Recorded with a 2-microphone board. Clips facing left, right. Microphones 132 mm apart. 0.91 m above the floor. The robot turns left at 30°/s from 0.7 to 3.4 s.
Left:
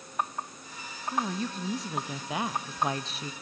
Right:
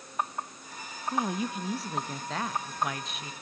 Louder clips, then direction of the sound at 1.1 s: Right 1 dB; 155° right.